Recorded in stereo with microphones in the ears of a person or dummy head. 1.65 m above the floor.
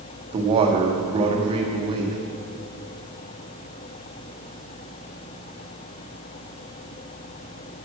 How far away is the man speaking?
About 1.7 m.